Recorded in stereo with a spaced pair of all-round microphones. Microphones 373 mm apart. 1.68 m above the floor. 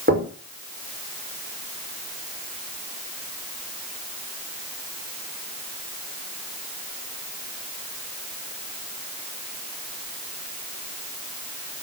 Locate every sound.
0.1 s knocking: 30° right (ahead or behind), 5 m